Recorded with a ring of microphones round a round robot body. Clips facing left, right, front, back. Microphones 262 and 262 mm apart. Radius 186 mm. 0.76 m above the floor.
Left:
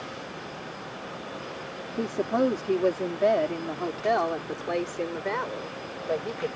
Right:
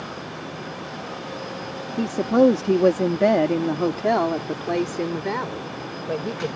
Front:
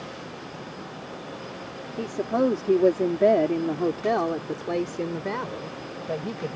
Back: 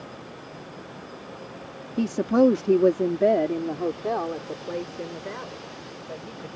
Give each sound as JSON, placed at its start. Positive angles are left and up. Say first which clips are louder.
{"t": 2.0, "sound": "a woman speaking", "louder": "right 8 dB, back 5 dB", "azimuth_deg": -145}